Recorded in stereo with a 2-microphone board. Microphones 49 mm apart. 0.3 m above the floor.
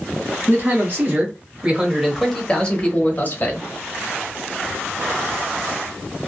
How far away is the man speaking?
About 1.3 m.